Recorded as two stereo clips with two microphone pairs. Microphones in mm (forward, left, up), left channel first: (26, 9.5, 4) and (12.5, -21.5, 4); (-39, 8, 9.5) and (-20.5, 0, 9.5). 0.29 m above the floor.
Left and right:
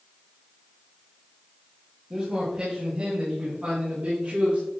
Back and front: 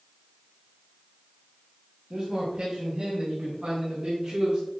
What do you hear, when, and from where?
2.1 s a man speaking: 50° right, 2.0 m; by 4.6 s 65° right, 4 m